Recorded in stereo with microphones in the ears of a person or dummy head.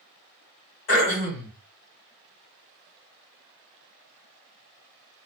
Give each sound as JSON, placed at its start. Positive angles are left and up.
{"t": 0.9, "sound": "throat clearing", "side_deg": 80, "distance_m": 1.7}